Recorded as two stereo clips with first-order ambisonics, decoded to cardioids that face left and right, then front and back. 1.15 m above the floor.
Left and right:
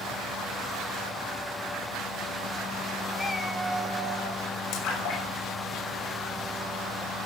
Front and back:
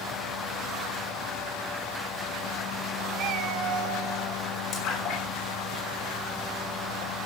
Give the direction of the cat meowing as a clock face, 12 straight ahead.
7 o'clock.